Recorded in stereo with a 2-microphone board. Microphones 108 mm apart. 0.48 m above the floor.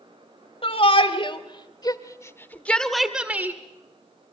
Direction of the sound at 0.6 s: 60° left (ahead or behind).